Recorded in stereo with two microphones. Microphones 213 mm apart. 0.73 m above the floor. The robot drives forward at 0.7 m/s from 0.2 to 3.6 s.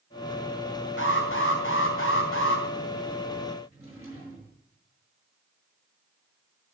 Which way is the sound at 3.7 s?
10° right (ahead or behind).